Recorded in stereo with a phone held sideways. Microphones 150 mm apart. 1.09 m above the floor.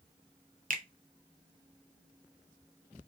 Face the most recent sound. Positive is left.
turn(degrees=-70)  # may be behind; listen again after turning